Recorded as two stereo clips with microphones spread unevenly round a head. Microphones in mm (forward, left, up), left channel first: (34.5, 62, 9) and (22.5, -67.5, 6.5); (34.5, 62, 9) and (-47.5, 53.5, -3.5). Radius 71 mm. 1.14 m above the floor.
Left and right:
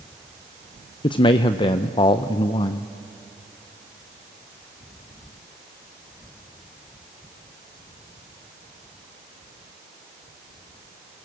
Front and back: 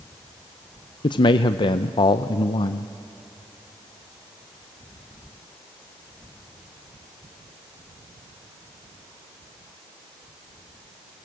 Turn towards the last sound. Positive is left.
turn(degrees=30)